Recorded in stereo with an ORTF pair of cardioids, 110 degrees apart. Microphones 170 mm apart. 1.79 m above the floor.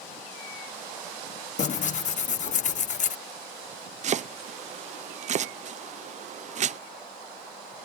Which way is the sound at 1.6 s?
45° left.